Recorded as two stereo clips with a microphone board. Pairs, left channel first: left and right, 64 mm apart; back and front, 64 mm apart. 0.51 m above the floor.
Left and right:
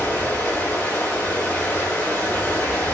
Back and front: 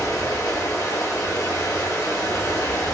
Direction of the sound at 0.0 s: 155° left.